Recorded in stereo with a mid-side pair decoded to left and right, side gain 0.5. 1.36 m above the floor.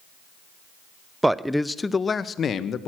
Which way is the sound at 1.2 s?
10° right.